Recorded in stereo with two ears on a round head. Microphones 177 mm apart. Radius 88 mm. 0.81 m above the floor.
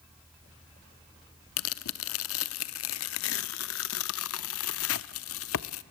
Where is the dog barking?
I don't hear a dog barking.